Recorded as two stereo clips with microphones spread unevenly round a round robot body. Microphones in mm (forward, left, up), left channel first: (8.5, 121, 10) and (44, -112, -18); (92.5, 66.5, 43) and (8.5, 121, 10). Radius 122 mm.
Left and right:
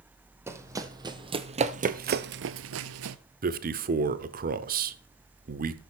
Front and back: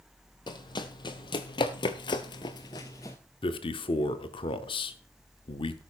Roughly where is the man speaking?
Right.